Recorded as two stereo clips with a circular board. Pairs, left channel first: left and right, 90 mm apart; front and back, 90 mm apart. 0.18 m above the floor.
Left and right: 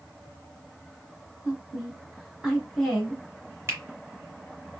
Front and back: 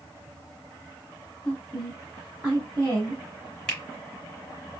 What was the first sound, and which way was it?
A woman speaking, 40° right.